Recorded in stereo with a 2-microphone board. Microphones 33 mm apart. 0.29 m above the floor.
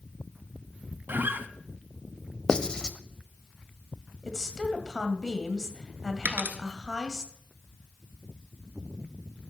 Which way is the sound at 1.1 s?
75° right (ahead or behind).